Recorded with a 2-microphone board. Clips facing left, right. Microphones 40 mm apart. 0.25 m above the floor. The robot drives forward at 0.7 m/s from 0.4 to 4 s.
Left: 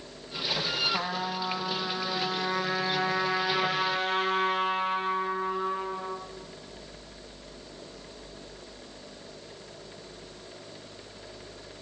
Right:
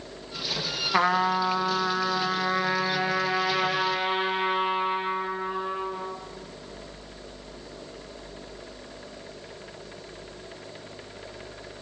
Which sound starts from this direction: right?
A trumpet, at 0.9 s.